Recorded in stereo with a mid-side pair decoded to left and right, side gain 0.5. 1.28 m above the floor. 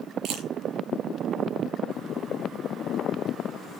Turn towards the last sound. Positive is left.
turn(degrees=-65)